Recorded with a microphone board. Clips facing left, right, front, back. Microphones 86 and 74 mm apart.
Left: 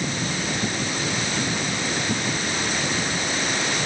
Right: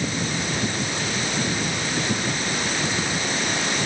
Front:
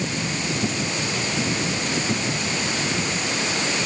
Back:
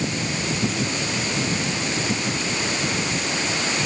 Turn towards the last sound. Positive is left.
No sound to turn to.